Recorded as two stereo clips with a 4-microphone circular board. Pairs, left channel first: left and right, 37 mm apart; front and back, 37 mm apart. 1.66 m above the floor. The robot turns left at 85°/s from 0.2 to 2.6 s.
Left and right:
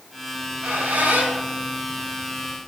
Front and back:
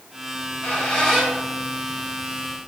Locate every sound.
0.3 s a squeak: 10° right, 3 m; by 2.6 s 160° left, 3 m